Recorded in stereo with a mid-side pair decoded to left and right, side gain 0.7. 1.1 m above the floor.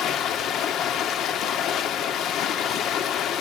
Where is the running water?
50° left, 1.8 m.